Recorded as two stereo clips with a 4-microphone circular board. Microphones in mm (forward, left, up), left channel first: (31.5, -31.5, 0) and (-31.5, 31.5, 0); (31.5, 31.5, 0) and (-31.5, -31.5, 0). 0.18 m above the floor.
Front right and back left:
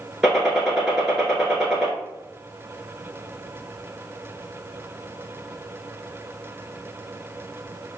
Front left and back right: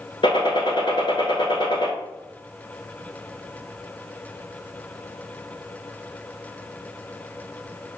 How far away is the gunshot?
About 1.0 m.